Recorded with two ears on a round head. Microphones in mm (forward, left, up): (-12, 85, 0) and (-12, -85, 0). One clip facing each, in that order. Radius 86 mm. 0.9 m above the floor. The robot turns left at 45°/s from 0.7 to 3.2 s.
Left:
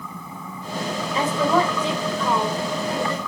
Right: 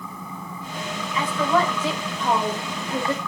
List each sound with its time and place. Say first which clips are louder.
1.1 s a woman speaking: left 2 dB; 25° left, 4.5 m; by 3.2 s 65° right, 4.5 m